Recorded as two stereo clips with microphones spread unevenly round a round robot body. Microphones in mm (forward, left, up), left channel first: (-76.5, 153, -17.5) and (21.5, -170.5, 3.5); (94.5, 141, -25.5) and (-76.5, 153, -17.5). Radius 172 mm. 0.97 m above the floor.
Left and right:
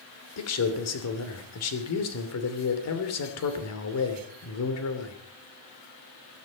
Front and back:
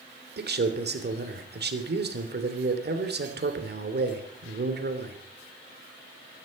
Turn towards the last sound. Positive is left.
turn(degrees=150)